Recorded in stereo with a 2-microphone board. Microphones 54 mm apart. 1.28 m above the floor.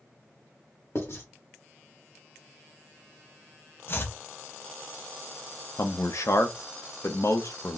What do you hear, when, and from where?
0.9 s writing: 60° left (ahead or behind), 1.6 m
3.9 s chopping: 45° left (ahead or behind), 0.6 m
5.8 s a man speaking: 70° left (ahead or behind), 0.7 m